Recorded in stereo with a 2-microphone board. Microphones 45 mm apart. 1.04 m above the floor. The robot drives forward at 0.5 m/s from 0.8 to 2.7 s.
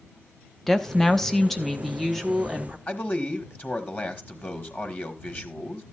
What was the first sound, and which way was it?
A woman speaking, 10° left (ahead or behind).